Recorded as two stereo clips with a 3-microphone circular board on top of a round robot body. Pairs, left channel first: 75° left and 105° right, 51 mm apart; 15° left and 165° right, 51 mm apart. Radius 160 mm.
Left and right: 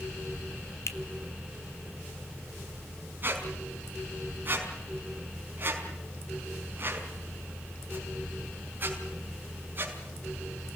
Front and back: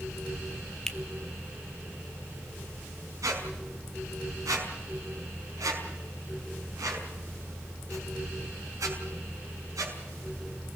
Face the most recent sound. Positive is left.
turn(degrees=-160)